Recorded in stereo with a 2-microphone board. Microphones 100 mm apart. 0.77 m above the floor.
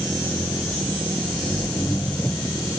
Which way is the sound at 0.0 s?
20° left (ahead or behind).